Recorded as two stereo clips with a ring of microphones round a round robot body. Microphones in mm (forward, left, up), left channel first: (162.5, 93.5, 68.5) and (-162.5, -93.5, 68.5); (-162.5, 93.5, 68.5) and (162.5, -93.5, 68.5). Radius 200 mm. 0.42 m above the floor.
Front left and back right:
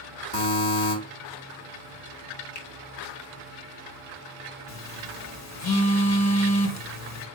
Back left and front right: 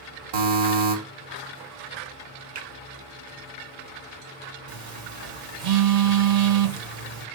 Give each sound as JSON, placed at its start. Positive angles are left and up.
{"t": 0.3, "sound": "a buzzer", "azimuth_deg": -25, "distance_m": 3.5}
{"t": 2.5, "sound": "a finger snap", "azimuth_deg": -15, "distance_m": 4.0}
{"t": 4.7, "sound": "a phone buzzing", "azimuth_deg": -15, "distance_m": 1.8}